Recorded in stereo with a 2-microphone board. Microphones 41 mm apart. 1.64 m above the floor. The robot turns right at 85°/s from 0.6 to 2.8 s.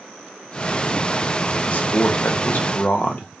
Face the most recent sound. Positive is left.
turn(degrees=135)